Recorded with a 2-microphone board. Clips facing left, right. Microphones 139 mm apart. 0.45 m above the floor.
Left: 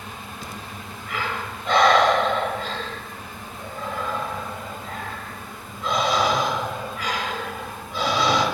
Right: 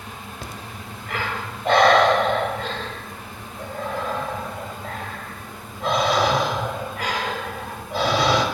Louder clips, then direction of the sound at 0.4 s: Even; 60° right (ahead or behind).